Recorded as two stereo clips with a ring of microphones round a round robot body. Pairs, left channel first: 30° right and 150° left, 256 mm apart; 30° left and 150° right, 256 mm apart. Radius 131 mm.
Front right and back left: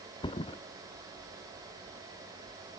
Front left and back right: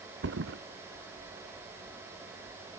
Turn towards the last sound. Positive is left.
turn(degrees=-100)